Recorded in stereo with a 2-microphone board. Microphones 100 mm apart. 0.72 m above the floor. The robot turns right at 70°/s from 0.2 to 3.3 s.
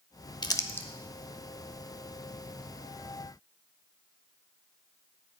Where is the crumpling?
45° left (ahead or behind), 1.0 m; by 0.9 s 15° left (ahead or behind), 1.0 m.